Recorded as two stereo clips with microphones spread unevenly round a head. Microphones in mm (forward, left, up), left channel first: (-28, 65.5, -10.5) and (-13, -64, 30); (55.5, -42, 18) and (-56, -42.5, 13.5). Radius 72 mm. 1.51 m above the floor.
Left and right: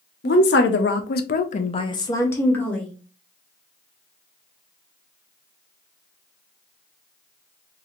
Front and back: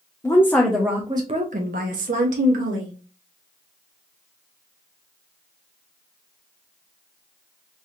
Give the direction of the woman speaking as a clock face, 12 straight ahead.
10 o'clock.